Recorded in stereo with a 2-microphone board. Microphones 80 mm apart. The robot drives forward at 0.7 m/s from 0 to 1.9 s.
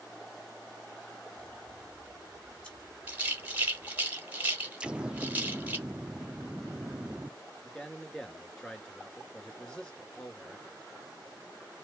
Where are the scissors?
15° left (ahead or behind), 2 m.